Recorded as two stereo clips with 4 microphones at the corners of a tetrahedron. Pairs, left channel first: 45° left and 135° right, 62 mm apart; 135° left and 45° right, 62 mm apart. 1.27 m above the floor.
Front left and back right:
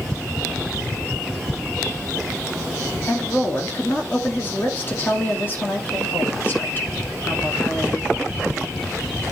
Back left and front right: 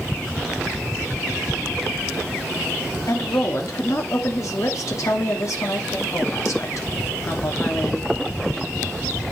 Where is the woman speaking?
105° left, 2.5 m.